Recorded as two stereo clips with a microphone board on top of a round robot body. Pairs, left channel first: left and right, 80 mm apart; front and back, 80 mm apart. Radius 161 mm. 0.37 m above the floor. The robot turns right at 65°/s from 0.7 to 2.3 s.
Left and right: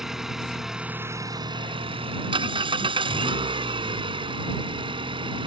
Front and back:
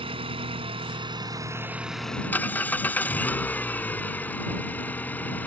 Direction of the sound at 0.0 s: 175° right.